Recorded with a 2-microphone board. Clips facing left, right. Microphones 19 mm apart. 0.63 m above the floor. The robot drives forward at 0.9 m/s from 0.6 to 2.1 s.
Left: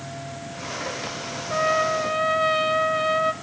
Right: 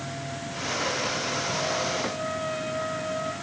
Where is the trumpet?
60° left (ahead or behind), 0.7 m; by 3.3 s 55° left (ahead or behind), 0.8 m.